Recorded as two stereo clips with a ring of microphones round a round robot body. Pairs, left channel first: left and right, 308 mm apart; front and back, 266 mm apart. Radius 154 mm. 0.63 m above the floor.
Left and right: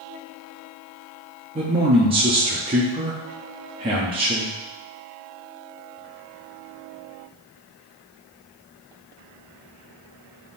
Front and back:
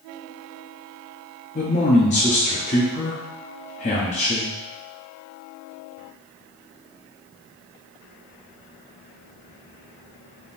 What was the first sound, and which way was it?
A man speaking, 35° right.